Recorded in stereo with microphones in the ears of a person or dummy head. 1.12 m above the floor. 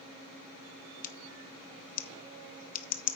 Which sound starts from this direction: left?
Scissors, at 1.0 s.